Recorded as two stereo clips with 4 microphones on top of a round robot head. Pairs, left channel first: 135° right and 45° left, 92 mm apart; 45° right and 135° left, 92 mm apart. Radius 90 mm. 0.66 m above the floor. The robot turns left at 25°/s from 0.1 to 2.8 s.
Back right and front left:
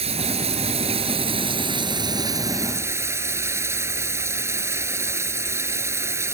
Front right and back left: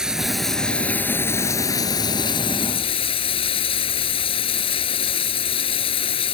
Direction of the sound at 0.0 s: 50° left.